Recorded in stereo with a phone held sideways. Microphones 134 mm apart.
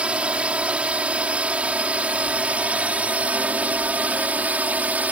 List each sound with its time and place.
0.0 s a drone: 10° right (ahead or behind)